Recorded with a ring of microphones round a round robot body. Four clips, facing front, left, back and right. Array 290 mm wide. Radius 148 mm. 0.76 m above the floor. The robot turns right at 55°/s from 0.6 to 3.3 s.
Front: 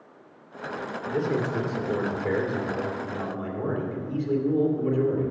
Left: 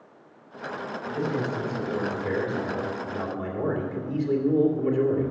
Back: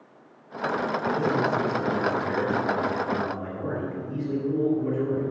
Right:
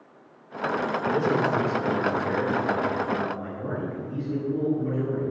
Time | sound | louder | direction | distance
1.1 | a man speaking | right 4 dB, back 1 dB | 70° right | 2.5 m